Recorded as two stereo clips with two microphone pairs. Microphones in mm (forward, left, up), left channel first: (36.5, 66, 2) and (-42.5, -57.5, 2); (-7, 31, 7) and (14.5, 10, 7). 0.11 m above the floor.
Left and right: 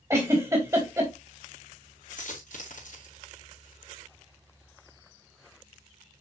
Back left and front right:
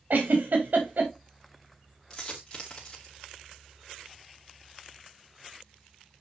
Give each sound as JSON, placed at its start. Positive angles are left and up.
{"t": 0.1, "sound": "a giggle", "azimuth_deg": -55, "distance_m": 3.5}
{"t": 2.1, "sound": "a dropped coin", "azimuth_deg": 80, "distance_m": 5.5}